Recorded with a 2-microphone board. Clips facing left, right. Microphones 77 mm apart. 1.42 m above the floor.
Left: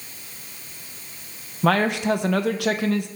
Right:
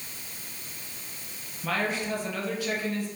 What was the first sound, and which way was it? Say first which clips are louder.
A man speaking: left 9 dB; 75° left (ahead or behind).